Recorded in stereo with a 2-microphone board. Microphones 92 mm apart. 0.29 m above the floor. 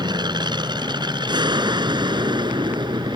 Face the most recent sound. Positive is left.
turn(degrees=-55)  # may be behind; listen again after turning